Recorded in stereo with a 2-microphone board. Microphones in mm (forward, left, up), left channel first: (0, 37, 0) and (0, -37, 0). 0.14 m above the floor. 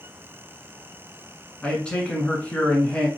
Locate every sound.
1.6 s a man speaking: 15° left (ahead or behind), 1.3 m